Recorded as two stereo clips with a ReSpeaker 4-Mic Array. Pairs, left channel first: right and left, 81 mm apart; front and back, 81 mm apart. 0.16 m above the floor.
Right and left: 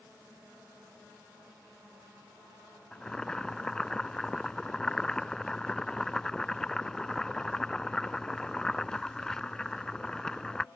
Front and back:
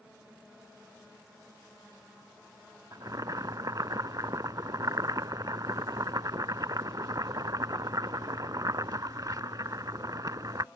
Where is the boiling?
170° right.